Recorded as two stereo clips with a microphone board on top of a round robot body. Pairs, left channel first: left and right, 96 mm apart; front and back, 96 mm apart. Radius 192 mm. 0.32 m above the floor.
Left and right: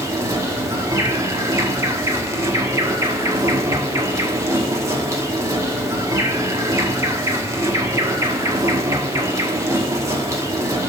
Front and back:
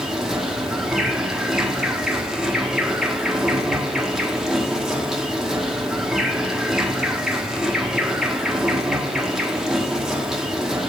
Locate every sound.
0.0 s an insect: 100° right, 1.7 m